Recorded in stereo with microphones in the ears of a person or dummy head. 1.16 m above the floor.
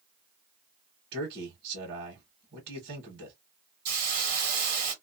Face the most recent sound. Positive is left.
turn(degrees=-40)  # may be behind; listen again after turning